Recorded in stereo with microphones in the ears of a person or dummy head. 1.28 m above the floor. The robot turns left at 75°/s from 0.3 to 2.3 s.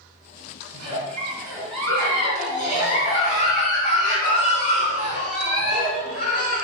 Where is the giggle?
110° right, 3 m; by 6.7 s 135° left, 3 m.